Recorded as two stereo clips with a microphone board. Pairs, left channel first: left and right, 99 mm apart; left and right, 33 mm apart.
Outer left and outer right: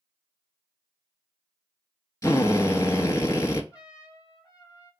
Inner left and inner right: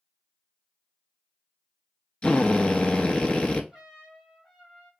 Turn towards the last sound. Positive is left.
turn(degrees=-10)  # may be behind; listen again after turning